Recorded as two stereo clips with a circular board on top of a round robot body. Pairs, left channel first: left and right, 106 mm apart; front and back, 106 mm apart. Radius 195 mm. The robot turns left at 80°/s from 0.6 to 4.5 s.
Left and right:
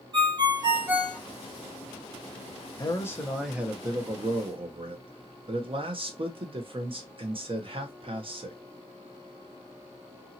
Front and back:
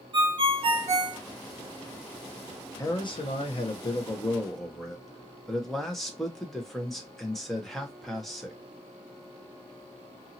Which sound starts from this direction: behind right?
A ringtone, at 0.1 s.